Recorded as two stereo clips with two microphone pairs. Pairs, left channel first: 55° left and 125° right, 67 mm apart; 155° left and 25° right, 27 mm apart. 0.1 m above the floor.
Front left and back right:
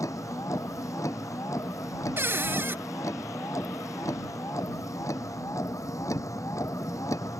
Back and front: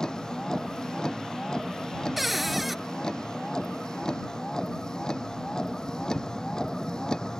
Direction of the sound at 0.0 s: 90° left.